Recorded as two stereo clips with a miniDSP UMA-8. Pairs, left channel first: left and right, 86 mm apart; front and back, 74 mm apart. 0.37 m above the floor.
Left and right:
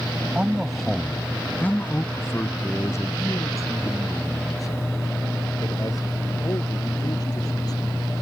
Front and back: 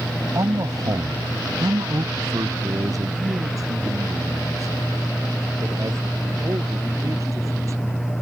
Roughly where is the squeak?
No squeak in this recording.